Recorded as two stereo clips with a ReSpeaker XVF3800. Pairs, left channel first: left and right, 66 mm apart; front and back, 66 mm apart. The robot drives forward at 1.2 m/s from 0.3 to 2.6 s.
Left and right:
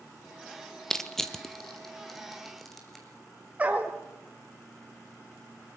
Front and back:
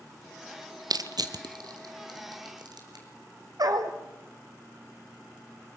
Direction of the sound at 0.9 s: 175° left.